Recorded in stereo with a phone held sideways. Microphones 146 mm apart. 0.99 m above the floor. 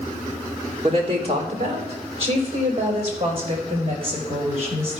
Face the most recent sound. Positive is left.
turn(degrees=-45)  # may be behind; listen again after turning